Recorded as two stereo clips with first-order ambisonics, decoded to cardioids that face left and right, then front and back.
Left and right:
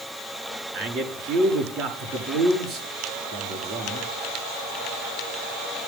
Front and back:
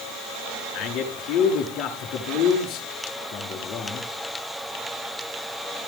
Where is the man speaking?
40° right, 6.5 m.